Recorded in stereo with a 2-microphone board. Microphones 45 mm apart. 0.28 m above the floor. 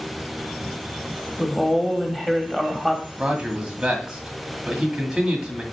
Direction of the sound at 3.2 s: 15° right (ahead or behind).